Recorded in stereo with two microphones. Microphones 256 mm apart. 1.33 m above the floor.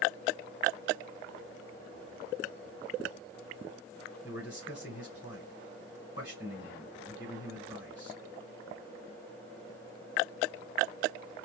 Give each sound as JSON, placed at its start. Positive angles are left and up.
{"t": 4.2, "sound": "a man speaking", "side_deg": 65, "distance_m": 2.5}